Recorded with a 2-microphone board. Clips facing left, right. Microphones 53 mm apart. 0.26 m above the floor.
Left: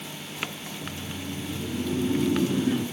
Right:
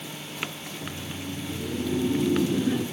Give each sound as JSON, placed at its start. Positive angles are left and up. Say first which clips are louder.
{"t": 0.6, "sound": "laughter", "louder": "even", "side_deg": 20, "distance_m": 3.5}